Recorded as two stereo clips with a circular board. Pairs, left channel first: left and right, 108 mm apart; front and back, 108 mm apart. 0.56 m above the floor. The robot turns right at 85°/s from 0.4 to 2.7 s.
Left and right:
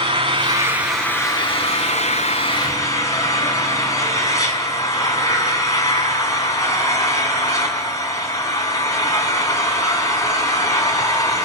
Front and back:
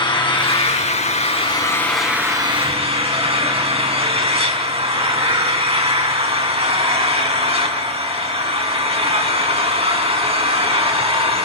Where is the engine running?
45° right, 5 m; by 11.4 s 150° left, 5 m.